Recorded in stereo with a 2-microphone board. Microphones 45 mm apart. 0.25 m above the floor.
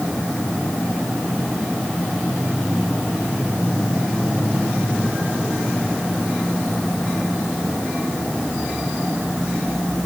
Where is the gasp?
No gasp in this recording.